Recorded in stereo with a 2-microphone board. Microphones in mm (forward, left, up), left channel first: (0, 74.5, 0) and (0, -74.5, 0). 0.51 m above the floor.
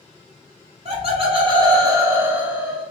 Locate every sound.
0.8 s laughter: 45° right (ahead or behind), 1.3 m; by 2.9 s centre (ahead or behind), 1.2 m